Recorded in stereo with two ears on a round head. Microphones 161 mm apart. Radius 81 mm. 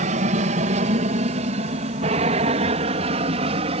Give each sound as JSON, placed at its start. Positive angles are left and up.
{"t": 0.0, "sound": "an aircraft", "side_deg": -40}